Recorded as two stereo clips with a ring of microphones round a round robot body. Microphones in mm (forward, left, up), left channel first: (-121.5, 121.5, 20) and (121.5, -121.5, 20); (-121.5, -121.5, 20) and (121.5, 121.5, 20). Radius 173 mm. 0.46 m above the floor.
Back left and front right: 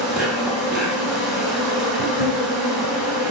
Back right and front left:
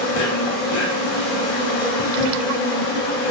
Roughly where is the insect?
Behind right.